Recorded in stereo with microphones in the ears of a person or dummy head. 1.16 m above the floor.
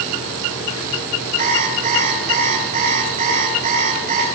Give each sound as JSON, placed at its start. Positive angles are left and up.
{"t": 1.4, "sound": "an alarm clock", "side_deg": -45, "distance_m": 7.0}